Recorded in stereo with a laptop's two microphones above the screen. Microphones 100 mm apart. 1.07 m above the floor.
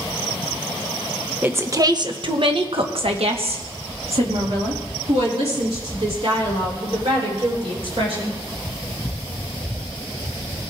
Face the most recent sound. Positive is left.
turn(degrees=-75)  # may be behind; listen again after turning